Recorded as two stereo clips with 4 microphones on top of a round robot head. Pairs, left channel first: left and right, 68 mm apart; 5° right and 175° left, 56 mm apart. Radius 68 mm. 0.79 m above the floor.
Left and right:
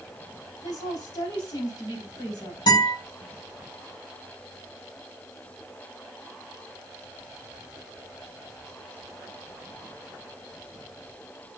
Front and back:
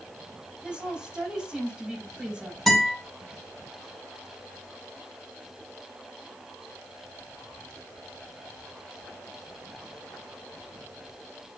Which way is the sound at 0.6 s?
100° left.